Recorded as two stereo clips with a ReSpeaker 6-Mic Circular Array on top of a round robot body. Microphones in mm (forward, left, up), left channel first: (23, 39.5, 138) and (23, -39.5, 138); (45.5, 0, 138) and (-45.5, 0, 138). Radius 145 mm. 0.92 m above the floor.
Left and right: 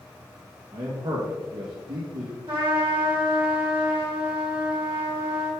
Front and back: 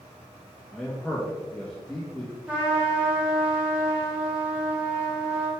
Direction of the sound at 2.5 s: 105° right.